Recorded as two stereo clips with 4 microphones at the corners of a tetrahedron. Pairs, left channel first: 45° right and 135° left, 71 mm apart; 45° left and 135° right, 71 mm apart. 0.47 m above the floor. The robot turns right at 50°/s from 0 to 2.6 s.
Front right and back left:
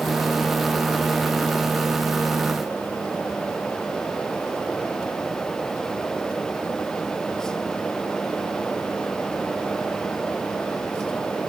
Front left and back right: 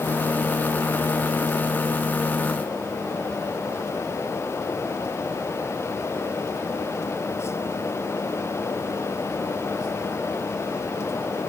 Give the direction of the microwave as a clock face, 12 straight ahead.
No microwave in this recording.